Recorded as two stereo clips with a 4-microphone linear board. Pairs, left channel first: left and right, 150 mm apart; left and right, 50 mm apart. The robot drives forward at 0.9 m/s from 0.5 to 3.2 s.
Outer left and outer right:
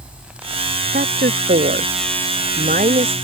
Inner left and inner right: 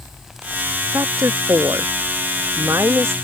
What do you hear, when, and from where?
0.9 s a woman speaking: 75° right (ahead or behind); by 3.1 s 60° right (ahead or behind)